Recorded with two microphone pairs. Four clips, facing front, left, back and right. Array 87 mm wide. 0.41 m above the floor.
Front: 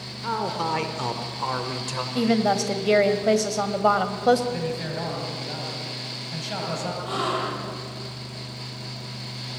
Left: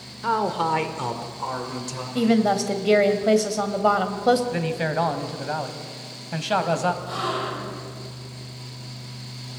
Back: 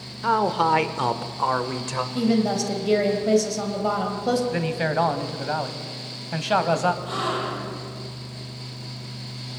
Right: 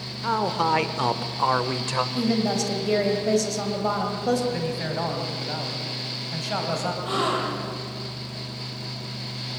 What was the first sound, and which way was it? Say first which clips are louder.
A man speaking: left 1 dB, back 6 dB; 150° left.